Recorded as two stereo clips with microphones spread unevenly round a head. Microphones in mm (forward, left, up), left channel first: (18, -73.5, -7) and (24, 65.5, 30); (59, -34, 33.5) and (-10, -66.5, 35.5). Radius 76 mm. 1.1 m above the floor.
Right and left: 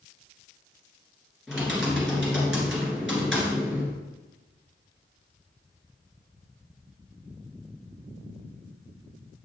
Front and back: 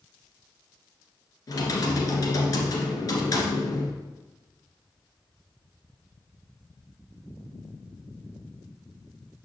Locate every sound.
1.5 s typing on a keyboard: 5° right, 1.8 m